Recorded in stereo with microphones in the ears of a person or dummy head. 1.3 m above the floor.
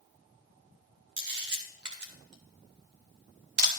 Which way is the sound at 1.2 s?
55° right (ahead or behind).